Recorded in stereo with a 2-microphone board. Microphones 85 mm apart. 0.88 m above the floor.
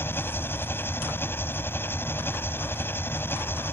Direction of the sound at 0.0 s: 25° left (ahead or behind).